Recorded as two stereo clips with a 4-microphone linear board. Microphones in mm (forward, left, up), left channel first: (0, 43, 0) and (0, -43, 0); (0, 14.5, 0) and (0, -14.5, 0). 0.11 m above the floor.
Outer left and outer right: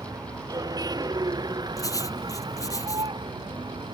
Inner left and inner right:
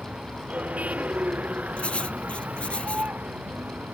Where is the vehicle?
50° right (ahead or behind); by 4.0 s 70° right (ahead or behind).